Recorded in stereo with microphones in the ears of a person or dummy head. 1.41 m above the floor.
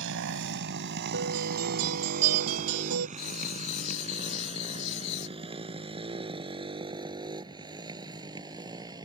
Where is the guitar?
85° right.